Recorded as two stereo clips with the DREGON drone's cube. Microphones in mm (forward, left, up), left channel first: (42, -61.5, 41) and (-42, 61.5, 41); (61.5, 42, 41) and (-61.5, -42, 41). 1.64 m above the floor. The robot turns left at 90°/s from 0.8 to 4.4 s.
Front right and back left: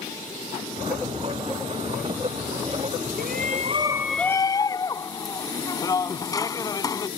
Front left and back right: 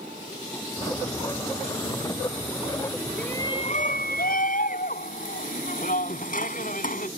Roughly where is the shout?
Behind left.